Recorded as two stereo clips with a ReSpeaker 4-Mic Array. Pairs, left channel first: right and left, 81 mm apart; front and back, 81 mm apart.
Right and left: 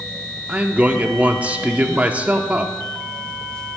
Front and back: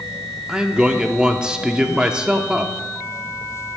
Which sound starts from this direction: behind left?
A man speaking, at 0.5 s.